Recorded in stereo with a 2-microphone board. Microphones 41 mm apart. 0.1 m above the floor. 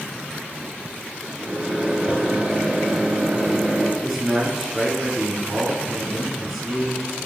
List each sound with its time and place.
1.4 s a microwave: 25° right (ahead or behind), 1.0 m
4.0 s a man speaking: 5° right (ahead or behind), 1.1 m